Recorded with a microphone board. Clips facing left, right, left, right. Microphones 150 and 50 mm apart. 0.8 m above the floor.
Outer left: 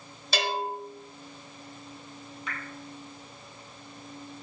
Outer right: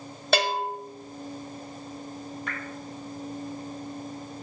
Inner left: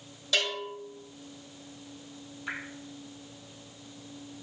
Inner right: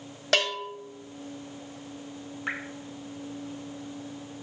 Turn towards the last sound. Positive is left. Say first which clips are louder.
# even, inner right 4 dB
turn(degrees=-50)  # may be behind; listen again after turning